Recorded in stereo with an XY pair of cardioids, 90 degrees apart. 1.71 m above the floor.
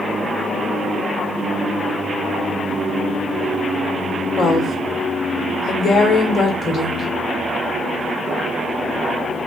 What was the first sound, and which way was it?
A woman speaking, 55° left.